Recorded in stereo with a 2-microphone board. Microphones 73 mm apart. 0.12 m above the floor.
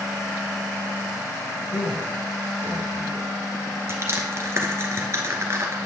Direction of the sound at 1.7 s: 70° left (ahead or behind).